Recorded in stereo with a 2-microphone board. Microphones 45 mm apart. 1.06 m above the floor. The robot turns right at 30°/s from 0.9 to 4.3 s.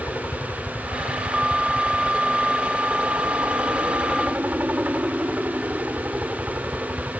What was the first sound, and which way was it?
A helicopter, 125° left.